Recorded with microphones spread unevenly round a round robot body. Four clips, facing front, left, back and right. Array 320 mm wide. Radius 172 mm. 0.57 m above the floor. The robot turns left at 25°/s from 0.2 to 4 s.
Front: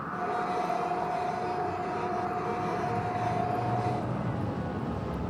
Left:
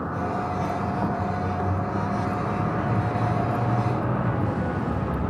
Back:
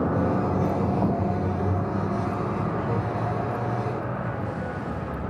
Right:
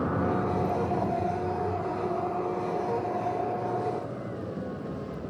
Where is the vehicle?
170° right; by 5.3 s 95° left.